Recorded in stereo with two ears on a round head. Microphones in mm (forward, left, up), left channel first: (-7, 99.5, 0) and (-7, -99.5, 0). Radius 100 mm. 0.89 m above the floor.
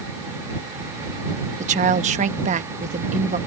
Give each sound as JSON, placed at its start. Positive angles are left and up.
{"t": 1.6, "sound": "a woman speaking", "side_deg": -35}